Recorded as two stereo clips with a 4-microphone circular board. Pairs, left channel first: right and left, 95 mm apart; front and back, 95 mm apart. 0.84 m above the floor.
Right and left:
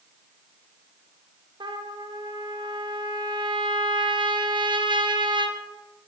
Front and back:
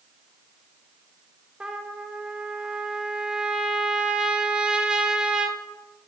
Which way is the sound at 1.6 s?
100° left.